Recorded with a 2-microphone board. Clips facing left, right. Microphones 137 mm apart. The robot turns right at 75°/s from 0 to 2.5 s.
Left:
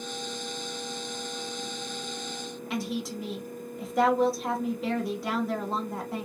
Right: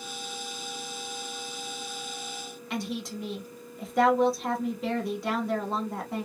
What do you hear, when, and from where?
2.7 s a woman speaking: centre (ahead or behind), 1.1 m